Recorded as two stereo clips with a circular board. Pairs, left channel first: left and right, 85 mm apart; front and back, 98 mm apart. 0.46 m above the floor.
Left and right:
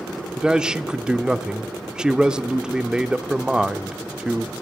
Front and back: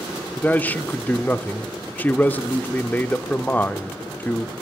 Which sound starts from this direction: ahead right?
A man speaking, at 0.4 s.